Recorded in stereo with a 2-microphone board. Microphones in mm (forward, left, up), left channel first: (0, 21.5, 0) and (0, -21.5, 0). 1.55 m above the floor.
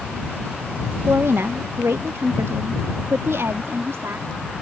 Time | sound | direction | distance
1.1 | a woman speaking | 70° right (ahead or behind) | ?